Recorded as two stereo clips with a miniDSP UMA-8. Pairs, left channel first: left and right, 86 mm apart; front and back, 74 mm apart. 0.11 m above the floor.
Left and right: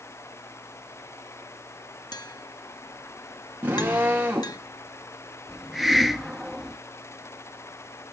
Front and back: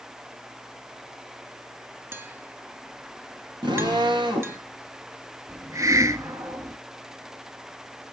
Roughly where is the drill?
Behind.